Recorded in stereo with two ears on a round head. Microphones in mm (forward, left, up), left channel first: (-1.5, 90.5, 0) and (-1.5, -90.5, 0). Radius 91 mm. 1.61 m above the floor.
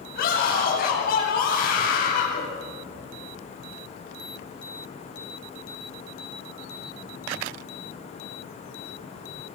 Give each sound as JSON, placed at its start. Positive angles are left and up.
{"t": 0.1, "sound": "a scream", "side_deg": 50, "distance_m": 9.0}